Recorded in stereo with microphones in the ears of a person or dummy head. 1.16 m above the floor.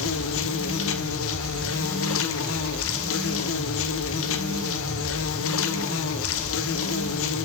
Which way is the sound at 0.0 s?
60° left (ahead or behind).